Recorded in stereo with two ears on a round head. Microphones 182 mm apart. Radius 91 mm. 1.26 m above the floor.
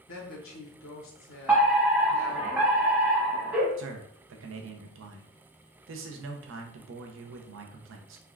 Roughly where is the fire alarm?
Centre.